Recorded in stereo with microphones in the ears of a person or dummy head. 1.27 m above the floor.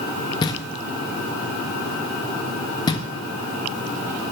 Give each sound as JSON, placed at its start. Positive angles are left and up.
{"t": 0.4, "sound": "knocking", "side_deg": 25, "distance_m": 1.4}